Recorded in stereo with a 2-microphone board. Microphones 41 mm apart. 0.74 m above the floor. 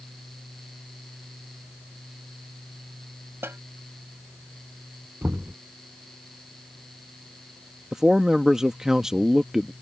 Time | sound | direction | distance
3.4 | a snare drum | 75° right (ahead or behind) | ?
5.2 | knocking | 60° right (ahead or behind) | ?
7.9 | a man speaking | 15° right (ahead or behind) | ?